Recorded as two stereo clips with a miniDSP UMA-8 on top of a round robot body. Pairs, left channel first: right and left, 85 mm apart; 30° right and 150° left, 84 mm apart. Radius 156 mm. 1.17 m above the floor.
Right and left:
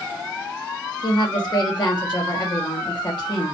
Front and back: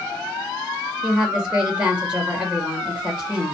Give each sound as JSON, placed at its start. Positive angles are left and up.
{"t": 1.0, "sound": "a woman speaking", "azimuth_deg": -130, "distance_m": 1.5}